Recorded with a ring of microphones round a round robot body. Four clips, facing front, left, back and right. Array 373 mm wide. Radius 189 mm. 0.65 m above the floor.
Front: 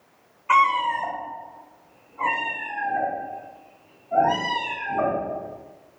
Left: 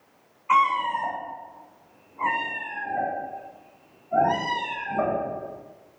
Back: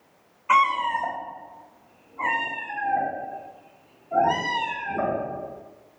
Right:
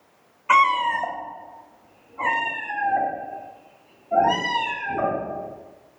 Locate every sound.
0.5 s a cat meowing: 90° right, 1.7 m